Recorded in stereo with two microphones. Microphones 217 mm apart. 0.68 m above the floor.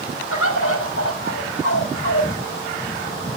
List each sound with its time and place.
0.3 s a bird: 75° left (ahead or behind), 5 m